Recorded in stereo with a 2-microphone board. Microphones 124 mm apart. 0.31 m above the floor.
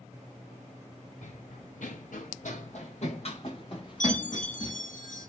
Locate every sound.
1.2 s running footsteps: 65° left (ahead or behind), 1.4 m; by 4.8 s 35° left (ahead or behind), 3 m
4.0 s a chime: 80° left, 1.7 m